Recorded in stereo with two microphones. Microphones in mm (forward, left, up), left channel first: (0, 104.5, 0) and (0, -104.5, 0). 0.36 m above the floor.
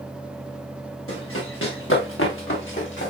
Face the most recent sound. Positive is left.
turn(degrees=65)  # may be behind; listen again after turning